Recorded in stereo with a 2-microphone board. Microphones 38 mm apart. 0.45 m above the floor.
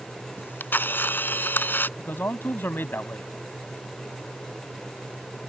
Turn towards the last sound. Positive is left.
turn(degrees=70)  # may be behind; listen again after turning